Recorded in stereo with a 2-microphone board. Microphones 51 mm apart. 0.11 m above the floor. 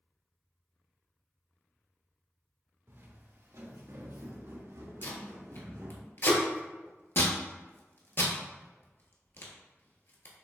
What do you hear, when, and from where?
2.9 s footsteps: 65° right (ahead or behind), 1.8 m; by 6.0 s 75° right (ahead or behind), 2.5 m
5.0 s tape being pulled: 55° left (ahead or behind), 1.2 m